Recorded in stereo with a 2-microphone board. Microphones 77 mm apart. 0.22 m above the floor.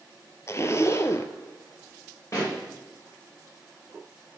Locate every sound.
0.5 s a zipper: 40° left (ahead or behind), 0.7 m
2.3 s a pop: 40° left (ahead or behind), 5 m